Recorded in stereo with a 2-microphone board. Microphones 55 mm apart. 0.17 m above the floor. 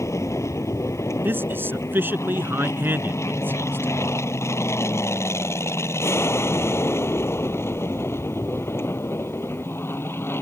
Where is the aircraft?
65° left (ahead or behind); by 10.4 s 45° left (ahead or behind).